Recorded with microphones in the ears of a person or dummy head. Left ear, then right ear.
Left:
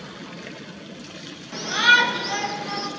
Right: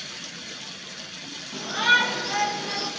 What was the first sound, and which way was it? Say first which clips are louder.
A shout: left 4 dB; 30° left (ahead or behind).